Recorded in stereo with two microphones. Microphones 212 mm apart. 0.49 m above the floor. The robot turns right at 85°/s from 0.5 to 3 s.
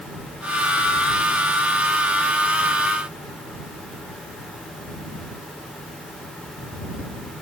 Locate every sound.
Only background noise.